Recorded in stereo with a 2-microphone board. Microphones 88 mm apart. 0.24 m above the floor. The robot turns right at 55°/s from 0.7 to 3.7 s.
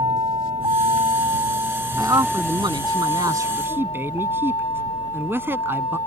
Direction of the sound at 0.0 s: 70° right (ahead or behind).